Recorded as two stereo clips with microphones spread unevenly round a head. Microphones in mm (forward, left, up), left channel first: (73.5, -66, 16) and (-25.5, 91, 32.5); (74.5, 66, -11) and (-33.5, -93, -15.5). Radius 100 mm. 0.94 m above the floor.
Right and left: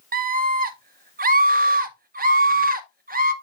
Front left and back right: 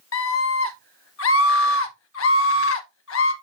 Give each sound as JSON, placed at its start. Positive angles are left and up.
{"t": 0.1, "sound": "a scream", "azimuth_deg": 80, "distance_m": 1.7}